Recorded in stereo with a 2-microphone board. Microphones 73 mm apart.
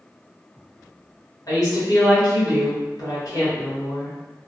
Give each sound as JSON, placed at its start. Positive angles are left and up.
{"t": 1.5, "sound": "a woman speaking", "side_deg": 55, "distance_m": 1.5}